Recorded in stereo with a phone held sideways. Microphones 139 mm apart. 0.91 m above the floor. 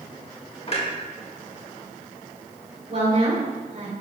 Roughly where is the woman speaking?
Right.